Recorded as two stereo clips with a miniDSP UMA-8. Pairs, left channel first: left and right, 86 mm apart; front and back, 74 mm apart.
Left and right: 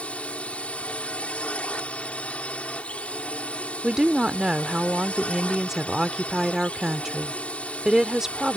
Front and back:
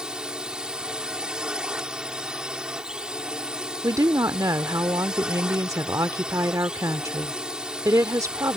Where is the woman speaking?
175° right.